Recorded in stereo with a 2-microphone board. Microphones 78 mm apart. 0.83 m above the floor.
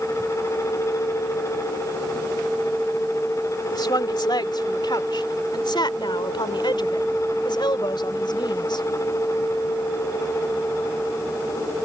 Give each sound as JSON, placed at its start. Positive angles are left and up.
{"t": 3.7, "sound": "a woman speaking", "side_deg": 65}